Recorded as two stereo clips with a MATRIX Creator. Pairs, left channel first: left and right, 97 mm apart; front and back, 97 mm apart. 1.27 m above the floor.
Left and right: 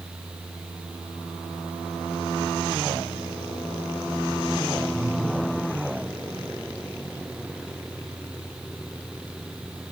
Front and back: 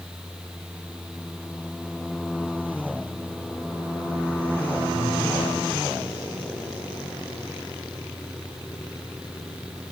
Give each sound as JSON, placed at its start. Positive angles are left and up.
{"t": 4.9, "sound": "breathing", "azimuth_deg": -20, "distance_m": 3.5}